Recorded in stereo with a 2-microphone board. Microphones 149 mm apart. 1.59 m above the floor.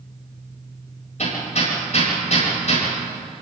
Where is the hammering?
55° left (ahead or behind), 8.5 m.